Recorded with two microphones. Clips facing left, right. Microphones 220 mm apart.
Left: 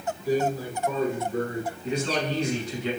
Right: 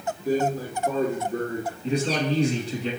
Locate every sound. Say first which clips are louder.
0.2 s a man speaking: right 1 dB; 45° right (ahead or behind), 1.5 m
1.8 s a man speaking: right 4 dB; 35° right (ahead or behind), 1.4 m